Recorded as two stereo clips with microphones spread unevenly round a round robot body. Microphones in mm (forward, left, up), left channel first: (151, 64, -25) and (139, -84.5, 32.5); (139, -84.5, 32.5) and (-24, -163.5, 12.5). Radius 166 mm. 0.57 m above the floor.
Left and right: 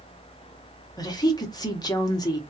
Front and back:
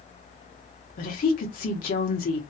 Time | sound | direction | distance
1.0 | a woman speaking | 60° left | 0.8 m